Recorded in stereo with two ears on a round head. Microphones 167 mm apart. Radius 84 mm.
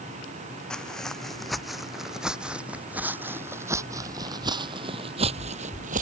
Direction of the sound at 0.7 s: 5° left (ahead or behind).